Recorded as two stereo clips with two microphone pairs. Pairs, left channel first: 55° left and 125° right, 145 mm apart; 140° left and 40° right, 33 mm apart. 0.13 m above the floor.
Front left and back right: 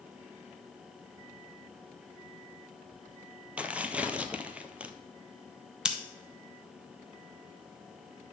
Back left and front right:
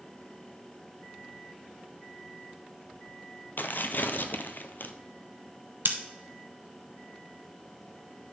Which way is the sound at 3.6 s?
155° left.